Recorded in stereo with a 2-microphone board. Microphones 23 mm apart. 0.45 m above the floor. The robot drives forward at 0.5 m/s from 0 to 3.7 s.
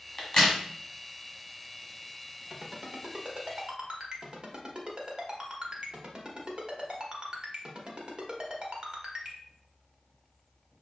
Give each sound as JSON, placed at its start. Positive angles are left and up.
{"t": 0.2, "sound": "a crack", "side_deg": 25, "distance_m": 1.5}
{"t": 2.5, "sound": "a ringtone", "side_deg": -40, "distance_m": 0.9}